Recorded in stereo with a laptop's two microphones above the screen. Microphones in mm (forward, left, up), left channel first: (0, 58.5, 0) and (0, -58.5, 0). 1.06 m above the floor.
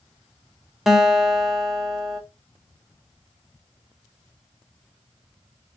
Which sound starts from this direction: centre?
A guitar, at 0.9 s.